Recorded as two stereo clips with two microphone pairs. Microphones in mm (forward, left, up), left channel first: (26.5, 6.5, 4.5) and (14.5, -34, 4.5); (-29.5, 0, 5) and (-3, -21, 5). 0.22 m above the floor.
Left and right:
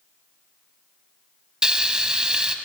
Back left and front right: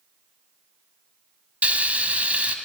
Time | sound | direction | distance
1.6 | frying | 45° right | 0.5 m